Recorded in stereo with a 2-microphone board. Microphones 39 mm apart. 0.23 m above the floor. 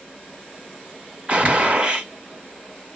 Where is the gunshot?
35° right (ahead or behind), 2 m.